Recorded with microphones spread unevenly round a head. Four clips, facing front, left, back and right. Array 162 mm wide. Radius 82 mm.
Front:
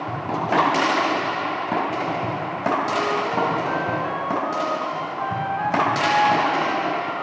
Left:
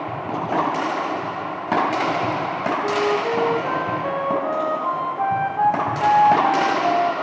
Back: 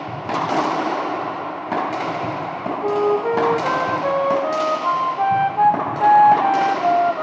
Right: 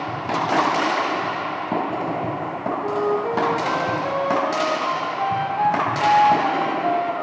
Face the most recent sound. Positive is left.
turn(degrees=175)